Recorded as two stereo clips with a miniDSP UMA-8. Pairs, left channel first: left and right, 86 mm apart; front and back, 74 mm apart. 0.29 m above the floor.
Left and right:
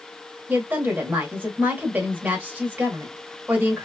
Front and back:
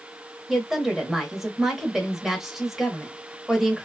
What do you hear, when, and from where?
0.5 s a woman speaking: 100° right, 1.0 m